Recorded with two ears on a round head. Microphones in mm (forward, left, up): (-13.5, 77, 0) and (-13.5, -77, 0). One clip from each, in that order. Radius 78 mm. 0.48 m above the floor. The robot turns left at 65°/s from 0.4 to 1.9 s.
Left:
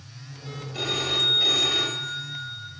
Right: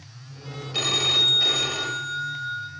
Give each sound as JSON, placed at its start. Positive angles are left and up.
{"t": 0.7, "sound": "a phone ringing", "azimuth_deg": -110, "distance_m": 1.9}